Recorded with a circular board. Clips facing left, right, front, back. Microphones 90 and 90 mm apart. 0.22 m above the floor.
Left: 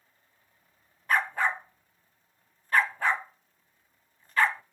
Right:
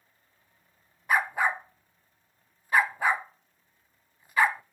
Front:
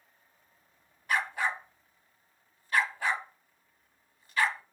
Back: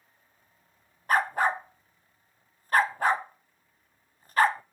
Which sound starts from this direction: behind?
A dog barking, at 1.1 s.